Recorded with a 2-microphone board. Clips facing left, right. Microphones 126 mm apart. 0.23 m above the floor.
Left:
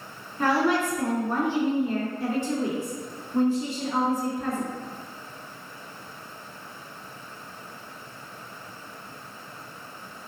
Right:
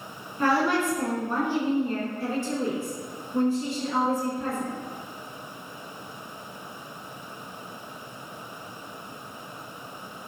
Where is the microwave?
I don't hear a microwave.